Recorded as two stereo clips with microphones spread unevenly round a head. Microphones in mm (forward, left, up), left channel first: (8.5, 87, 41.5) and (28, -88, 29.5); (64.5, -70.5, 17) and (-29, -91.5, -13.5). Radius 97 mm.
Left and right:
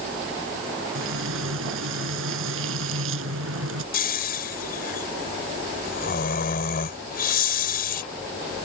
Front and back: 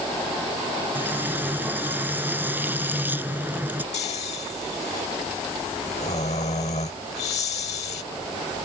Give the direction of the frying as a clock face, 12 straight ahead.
3 o'clock.